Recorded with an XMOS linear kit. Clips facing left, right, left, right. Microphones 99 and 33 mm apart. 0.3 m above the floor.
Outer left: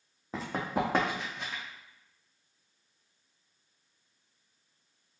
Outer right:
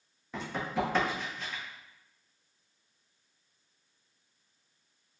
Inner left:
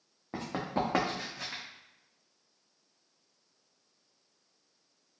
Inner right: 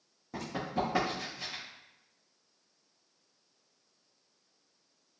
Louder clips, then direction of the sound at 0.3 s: Outer left 1 dB, inner left 1 dB; 30° left (ahead or behind).